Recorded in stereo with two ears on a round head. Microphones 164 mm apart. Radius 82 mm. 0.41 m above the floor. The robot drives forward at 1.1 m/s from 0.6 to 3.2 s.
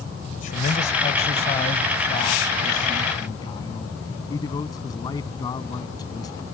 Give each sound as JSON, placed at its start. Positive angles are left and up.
{"t": 0.3, "sound": "a man speaking", "side_deg": 45}